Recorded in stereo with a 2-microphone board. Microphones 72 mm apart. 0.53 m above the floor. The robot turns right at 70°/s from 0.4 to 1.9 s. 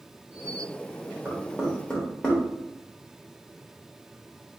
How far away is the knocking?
About 1.3 m.